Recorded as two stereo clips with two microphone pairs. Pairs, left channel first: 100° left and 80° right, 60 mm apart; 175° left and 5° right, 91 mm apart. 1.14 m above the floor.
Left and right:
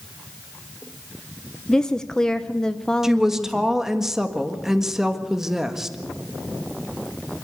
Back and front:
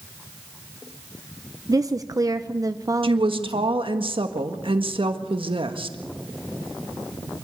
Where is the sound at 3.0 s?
Straight ahead, 1.6 m.